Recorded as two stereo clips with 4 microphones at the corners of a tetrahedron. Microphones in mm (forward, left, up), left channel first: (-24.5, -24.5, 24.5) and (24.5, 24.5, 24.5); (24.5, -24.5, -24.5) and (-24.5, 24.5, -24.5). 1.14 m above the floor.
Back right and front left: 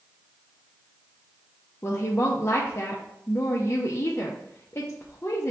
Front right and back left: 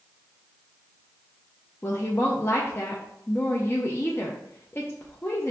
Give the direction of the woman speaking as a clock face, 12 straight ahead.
3 o'clock.